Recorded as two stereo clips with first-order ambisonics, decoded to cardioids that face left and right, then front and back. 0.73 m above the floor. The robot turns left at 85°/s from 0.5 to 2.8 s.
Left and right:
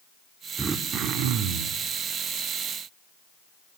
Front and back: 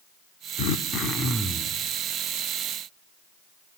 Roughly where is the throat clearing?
Ahead.